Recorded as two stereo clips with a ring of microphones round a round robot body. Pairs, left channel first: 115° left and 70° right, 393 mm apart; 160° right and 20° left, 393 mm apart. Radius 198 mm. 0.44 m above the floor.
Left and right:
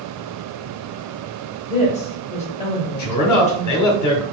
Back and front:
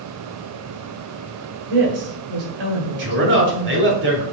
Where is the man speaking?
80° left, 1.2 m.